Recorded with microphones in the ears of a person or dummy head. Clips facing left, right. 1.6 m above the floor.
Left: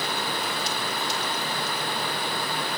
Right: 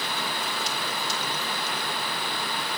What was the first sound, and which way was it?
Only background noise.